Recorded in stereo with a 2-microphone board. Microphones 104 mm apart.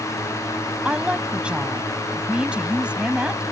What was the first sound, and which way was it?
A woman speaking, 10° right (ahead or behind).